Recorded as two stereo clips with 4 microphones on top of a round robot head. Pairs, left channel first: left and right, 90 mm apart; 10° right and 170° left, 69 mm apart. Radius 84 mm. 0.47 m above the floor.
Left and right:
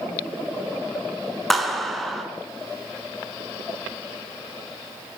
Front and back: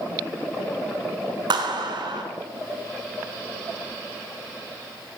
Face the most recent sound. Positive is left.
turn(degrees=180)